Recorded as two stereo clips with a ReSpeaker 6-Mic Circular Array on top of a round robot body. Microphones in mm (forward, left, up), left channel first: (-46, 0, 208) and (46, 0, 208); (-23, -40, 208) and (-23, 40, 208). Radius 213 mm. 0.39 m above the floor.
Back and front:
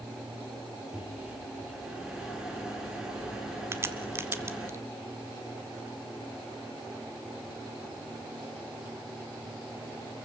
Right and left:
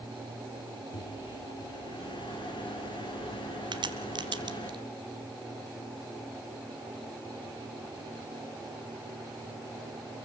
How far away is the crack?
About 1.3 m.